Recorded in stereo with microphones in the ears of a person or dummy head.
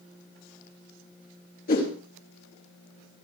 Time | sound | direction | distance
1.7 | a whoosh | 50° left (ahead or behind) | 4.5 m